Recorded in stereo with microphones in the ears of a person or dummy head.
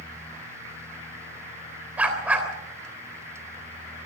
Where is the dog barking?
10° right (ahead or behind), 3 m.